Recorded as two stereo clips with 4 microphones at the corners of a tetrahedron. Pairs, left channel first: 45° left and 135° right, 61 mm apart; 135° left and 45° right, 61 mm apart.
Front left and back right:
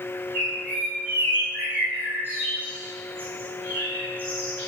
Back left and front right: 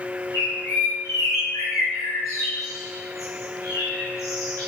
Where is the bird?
170° left, 6.5 m.